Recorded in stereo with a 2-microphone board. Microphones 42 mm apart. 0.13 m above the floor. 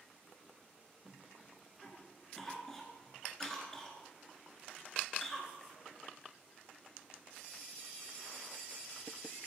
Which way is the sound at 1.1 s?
10° left (ahead or behind).